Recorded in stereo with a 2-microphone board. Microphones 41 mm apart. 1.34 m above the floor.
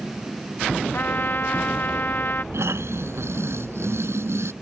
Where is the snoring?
85° right.